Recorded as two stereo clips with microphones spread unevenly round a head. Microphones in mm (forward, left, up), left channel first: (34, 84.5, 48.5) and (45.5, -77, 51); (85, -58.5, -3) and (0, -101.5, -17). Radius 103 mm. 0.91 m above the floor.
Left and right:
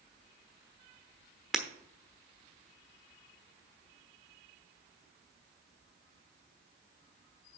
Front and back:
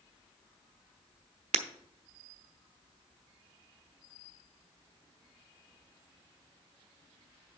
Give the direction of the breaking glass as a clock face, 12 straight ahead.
6 o'clock.